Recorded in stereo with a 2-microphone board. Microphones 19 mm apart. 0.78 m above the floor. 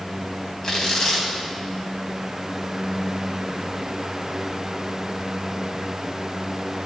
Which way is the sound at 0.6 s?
35° left (ahead or behind).